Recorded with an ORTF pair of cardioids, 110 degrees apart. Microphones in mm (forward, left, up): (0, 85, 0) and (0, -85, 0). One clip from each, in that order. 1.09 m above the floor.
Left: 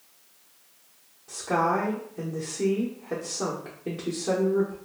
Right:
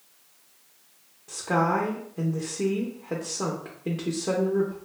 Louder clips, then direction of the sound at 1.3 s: Even; 15° right.